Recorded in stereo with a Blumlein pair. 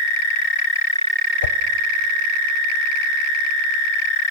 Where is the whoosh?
65° left, 0.6 m.